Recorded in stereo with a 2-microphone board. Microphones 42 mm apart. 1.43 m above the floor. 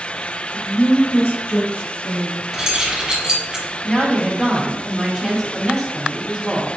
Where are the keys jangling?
15° right (ahead or behind), 1.3 m.